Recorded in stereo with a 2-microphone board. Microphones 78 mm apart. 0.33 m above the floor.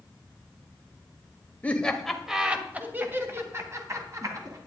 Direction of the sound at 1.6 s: 20° left (ahead or behind).